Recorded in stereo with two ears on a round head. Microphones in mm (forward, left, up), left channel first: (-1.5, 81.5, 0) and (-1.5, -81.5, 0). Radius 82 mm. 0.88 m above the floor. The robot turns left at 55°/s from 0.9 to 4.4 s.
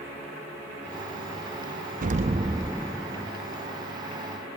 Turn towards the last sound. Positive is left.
turn(degrees=100)